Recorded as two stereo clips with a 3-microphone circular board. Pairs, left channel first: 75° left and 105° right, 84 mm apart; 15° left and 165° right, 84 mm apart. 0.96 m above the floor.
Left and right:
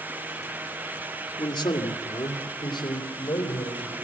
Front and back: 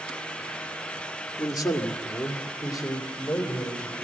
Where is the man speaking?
55° left, 2.0 m; by 4.0 s 60° left, 3.5 m.